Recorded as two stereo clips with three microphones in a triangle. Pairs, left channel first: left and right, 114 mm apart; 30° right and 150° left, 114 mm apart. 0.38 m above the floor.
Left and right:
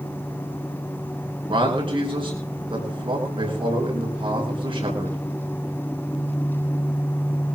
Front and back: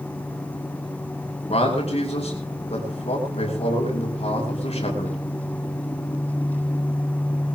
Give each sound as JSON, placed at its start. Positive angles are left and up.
{"t": 1.5, "sound": "a man speaking", "azimuth_deg": -50, "distance_m": 5.0}